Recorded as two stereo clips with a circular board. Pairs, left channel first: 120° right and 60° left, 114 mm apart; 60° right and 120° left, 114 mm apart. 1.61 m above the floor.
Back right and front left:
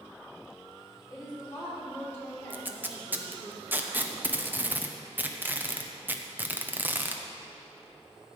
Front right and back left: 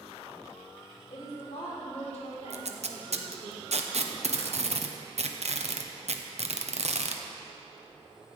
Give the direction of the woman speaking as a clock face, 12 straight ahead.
2 o'clock.